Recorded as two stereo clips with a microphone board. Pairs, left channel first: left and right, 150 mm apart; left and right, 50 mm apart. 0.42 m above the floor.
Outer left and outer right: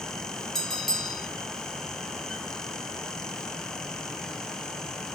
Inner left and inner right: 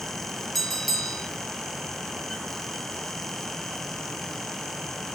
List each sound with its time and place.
0.6 s a bell: 5° left (ahead or behind), 3.5 m